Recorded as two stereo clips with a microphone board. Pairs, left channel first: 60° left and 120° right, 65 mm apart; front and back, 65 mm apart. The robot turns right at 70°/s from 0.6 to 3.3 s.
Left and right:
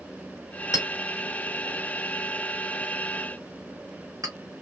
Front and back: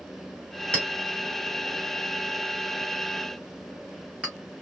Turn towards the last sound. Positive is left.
turn(degrees=-105)